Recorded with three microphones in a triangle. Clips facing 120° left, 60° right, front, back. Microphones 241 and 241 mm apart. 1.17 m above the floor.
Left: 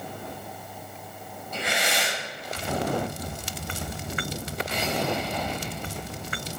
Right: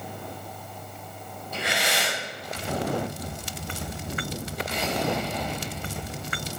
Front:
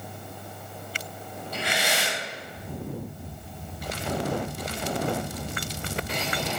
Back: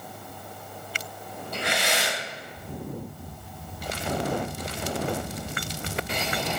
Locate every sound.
1.5 s breathing: 140° right, 5.5 m